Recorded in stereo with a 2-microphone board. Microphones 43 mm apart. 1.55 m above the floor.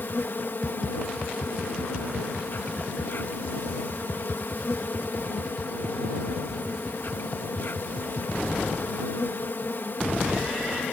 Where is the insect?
60° left (ahead or behind).